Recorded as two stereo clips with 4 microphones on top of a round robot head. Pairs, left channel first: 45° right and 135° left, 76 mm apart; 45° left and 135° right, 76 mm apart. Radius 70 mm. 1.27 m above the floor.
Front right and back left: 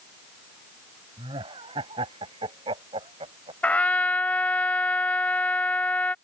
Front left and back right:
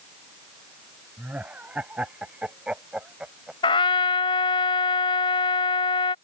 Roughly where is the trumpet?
Ahead left.